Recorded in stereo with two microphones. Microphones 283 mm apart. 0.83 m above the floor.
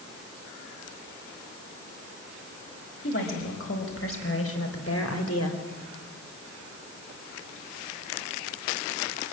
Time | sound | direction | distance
3.0 | a woman speaking | 45° left (ahead or behind) | 4.5 m